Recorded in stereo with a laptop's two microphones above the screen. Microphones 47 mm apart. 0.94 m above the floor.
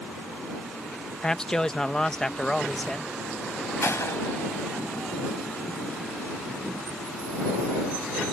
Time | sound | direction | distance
1.2 | a man speaking | 15° left (ahead or behind) | ?
3.8 | a gunshot | 70° left (ahead or behind) | ?